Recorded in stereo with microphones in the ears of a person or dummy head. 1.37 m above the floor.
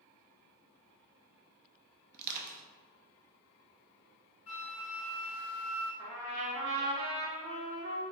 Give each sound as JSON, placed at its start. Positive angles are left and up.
{"t": 2.1, "sound": "crushing", "side_deg": -45, "distance_m": 0.5}
{"t": 4.5, "sound": "a flute", "side_deg": -10, "distance_m": 1.1}
{"t": 6.0, "sound": "a trumpet", "side_deg": -75, "distance_m": 1.1}